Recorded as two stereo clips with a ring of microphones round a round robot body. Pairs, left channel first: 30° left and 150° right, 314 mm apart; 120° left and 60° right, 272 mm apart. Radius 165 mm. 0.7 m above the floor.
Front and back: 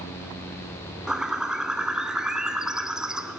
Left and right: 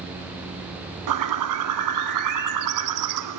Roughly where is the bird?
Ahead right.